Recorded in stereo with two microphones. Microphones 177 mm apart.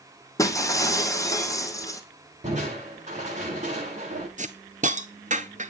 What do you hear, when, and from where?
0.4 s breaking glass: 20° left (ahead or behind), 2.5 m
2.4 s crushing: 40° right (ahead or behind), 8.5 m
4.4 s a hiss: 45° right (ahead or behind), 1.0 m